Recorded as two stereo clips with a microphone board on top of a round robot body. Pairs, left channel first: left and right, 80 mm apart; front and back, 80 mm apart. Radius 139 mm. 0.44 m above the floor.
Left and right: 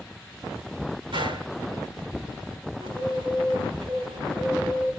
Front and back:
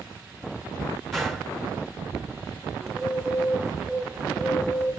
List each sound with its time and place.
1.1 s a gunshot: 90° right, 4.5 m
2.8 s a bird: 95° right, 4.5 m